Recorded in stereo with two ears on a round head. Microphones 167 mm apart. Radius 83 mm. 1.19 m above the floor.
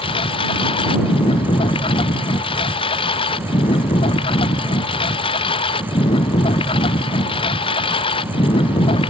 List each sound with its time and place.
0.0 s a lawn mower: 25° left (ahead or behind)